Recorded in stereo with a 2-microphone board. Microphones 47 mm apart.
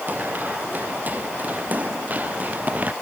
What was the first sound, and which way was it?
Running footsteps, 35° right (ahead or behind).